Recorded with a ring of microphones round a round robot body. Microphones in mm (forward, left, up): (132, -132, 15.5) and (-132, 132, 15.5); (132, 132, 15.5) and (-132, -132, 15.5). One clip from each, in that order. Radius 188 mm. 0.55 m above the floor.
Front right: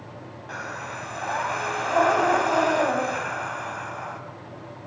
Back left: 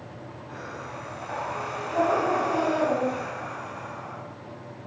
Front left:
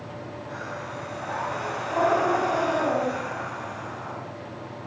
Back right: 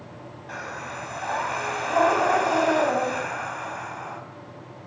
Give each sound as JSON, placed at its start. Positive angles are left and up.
{"t": 0.5, "sound": "breathing", "azimuth_deg": -80, "distance_m": 4.5}